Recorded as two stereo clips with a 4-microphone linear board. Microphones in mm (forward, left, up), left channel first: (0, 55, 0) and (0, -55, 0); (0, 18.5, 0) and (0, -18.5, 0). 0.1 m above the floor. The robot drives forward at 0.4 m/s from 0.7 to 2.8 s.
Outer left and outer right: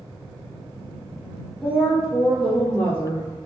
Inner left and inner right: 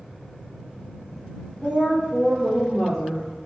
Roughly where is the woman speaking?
Centre.